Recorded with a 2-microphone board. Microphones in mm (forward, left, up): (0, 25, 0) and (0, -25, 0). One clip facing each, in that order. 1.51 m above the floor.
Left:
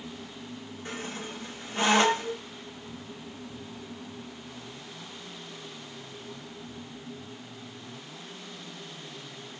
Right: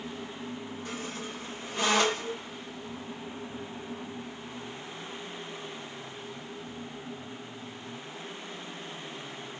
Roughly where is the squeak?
Left.